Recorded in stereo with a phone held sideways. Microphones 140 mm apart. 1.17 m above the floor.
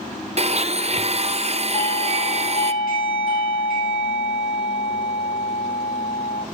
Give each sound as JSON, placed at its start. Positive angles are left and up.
{"t": 0.4, "sound": "a blender", "side_deg": -45, "distance_m": 0.5}
{"t": 1.7, "sound": "a doorbell", "side_deg": 70, "distance_m": 6.0}